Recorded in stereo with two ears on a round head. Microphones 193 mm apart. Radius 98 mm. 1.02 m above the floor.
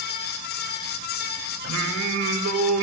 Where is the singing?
80° right, 2.5 m.